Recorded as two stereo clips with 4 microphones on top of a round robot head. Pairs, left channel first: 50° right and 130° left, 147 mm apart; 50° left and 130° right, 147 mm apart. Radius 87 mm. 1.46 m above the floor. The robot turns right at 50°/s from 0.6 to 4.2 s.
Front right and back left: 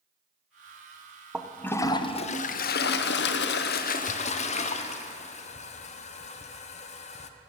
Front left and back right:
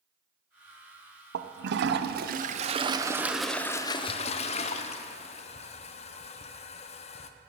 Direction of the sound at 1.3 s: 145° right.